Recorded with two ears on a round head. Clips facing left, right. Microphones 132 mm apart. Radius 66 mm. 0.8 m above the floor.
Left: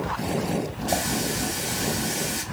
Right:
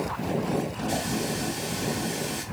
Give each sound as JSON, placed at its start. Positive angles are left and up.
{"t": 0.9, "sound": "a running tap", "side_deg": 65, "distance_m": 2.5}